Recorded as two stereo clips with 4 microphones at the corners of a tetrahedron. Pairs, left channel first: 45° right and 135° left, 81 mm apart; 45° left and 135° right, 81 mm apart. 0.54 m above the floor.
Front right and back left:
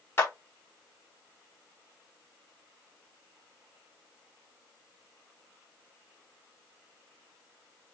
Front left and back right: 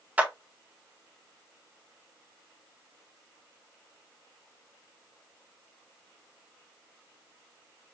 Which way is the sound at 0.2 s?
75° right.